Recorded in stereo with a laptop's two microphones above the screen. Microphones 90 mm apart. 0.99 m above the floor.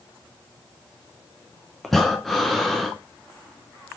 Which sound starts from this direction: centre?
Breathing, at 1.8 s.